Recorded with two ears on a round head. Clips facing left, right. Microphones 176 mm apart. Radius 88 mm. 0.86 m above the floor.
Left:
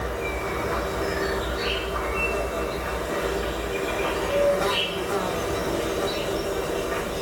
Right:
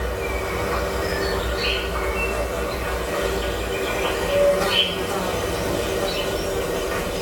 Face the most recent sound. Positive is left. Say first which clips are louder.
# right 3 dB
turn(degrees=-40)  # may be behind; listen again after turning